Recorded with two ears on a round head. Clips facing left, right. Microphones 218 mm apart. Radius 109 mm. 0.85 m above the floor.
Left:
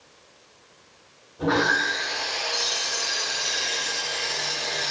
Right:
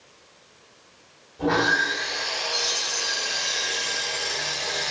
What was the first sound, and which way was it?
Sawing, centre (ahead or behind).